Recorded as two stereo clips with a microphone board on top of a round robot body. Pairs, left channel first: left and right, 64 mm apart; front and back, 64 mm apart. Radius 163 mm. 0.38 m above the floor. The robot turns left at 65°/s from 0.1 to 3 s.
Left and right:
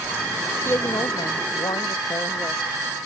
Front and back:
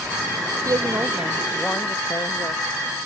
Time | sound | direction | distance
0.7 | a woman speaking | 145° left | ?